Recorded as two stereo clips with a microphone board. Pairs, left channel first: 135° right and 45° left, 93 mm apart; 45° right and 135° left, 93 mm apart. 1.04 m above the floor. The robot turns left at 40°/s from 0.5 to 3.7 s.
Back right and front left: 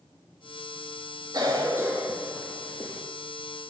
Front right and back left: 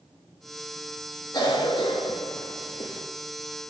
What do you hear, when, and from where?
1.3 s a cough: straight ahead, 1.8 m; by 3.0 s 70° right, 1.8 m